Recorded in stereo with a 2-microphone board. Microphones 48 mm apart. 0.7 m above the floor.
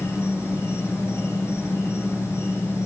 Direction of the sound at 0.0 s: 80° left.